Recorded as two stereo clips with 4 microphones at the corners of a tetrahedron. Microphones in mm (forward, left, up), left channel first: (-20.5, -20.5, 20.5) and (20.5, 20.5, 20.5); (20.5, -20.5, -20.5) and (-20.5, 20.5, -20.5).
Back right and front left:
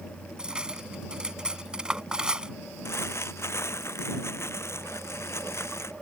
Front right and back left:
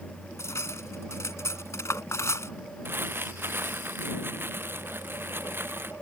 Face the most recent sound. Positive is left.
turn(degrees=-175)